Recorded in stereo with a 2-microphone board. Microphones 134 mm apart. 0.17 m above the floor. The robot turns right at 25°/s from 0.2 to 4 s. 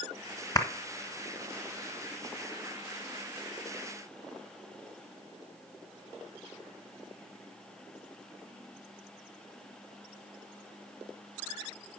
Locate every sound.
0.6 s a clap: 30° left (ahead or behind), 1.4 m